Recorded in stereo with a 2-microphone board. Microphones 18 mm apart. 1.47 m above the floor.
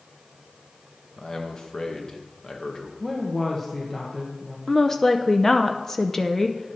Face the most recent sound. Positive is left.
turn(degrees=15)  # may be behind; listen again after turning